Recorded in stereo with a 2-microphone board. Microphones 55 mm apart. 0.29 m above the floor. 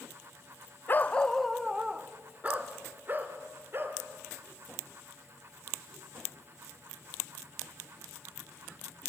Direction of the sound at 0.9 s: 40° left (ahead or behind).